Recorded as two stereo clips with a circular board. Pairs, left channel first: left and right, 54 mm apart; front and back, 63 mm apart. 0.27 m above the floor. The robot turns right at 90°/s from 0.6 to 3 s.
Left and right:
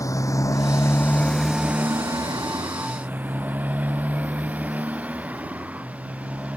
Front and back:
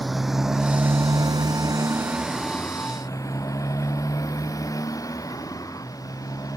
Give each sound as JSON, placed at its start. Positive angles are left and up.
{"t": 0.0, "sound": "a motorcycle", "azimuth_deg": 90}